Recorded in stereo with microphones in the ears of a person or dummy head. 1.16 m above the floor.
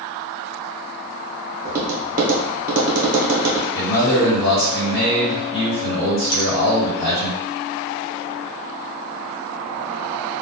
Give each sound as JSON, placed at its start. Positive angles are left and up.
{"t": 1.6, "sound": "tapping", "side_deg": -40, "distance_m": 0.8}
{"t": 3.7, "sound": "a man speaking", "side_deg": 60, "distance_m": 1.1}
{"t": 6.3, "sound": "a finger snap", "side_deg": 75, "distance_m": 0.9}